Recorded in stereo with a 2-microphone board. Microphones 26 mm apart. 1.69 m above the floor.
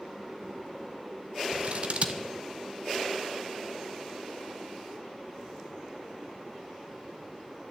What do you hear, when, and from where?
1.5 s scissors: 55° right (ahead or behind), 1.3 m